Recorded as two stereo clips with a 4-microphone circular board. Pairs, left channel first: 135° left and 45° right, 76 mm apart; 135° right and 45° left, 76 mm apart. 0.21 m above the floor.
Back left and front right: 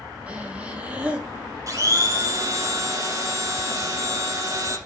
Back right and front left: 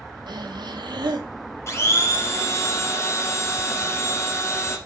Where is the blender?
85° right, 1.8 m.